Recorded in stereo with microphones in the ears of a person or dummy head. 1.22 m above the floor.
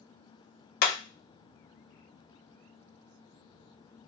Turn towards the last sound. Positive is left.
turn(degrees=65)  # may be behind; listen again after turning